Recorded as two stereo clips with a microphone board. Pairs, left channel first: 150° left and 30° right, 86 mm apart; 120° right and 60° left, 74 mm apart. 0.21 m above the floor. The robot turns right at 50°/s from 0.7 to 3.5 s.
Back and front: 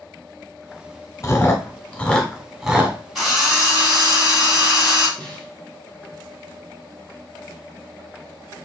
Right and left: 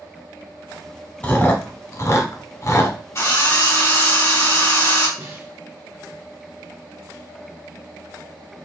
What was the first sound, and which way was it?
Chewing, straight behind.